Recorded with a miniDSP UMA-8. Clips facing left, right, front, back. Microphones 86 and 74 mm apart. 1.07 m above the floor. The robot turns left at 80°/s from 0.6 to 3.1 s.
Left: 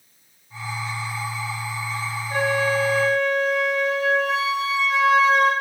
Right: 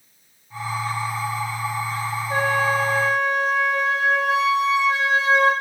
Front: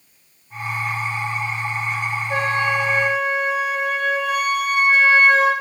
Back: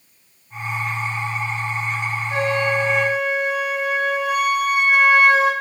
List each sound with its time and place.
2.3 s a flute: 35° right, 2.5 m; by 5.5 s 100° right, 2.5 m